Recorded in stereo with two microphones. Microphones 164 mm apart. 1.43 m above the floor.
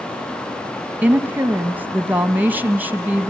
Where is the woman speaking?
10° right (ahead or behind), 1.2 m.